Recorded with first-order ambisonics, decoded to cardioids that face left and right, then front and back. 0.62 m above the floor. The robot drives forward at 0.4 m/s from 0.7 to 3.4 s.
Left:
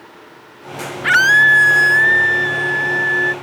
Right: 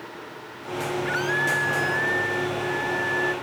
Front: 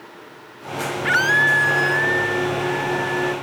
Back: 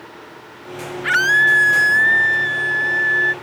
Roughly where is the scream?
Left.